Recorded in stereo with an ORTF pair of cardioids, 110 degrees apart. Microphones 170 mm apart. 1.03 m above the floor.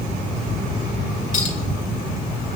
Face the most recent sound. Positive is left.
turn(degrees=50)